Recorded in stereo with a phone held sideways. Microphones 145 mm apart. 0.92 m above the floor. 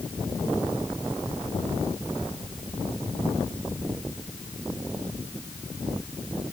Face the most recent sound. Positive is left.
No sound to turn to.